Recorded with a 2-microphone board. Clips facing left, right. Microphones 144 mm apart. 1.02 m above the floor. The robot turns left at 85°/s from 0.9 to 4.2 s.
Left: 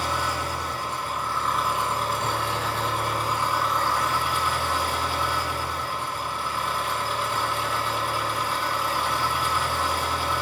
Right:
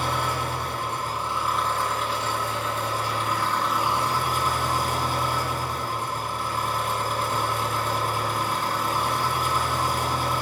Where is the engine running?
120° right, 3.5 m; by 10.4 s 40° right, 3.5 m.